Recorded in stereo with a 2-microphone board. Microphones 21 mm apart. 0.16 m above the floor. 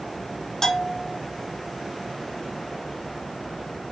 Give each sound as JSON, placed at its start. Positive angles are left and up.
{"t": 0.6, "sound": "a bell", "side_deg": 25, "distance_m": 0.5}